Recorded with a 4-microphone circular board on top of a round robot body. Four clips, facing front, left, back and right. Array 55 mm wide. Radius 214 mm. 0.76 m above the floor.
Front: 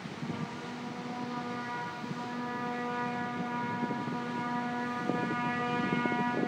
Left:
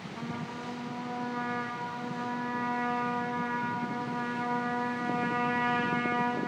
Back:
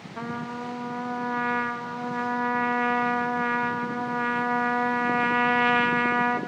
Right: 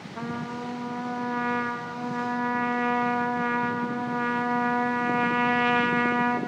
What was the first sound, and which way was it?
A trumpet, 155° right.